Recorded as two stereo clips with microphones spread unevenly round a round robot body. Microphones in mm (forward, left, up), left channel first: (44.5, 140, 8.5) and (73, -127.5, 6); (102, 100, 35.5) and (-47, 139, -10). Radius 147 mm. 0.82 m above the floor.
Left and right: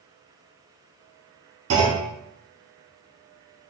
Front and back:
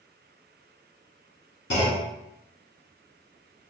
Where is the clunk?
55° right, 1.2 m.